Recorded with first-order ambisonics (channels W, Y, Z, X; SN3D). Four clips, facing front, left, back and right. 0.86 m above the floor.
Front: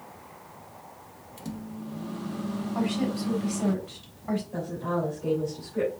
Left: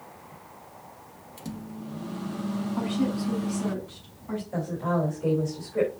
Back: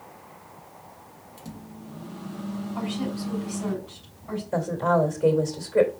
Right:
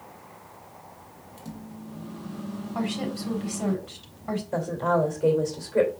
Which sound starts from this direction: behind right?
A woman speaking, at 4.5 s.